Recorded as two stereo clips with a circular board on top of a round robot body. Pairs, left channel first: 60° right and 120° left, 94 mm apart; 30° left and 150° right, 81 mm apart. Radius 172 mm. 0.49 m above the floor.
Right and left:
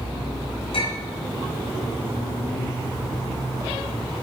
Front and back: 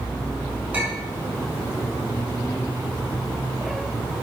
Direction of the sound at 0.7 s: 80° right.